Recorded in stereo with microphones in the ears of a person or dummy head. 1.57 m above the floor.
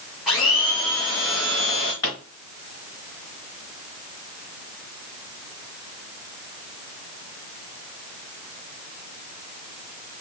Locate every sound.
0.3 s a blender: 5° left (ahead or behind), 0.8 m
2.0 s a pop: 25° left (ahead or behind), 2 m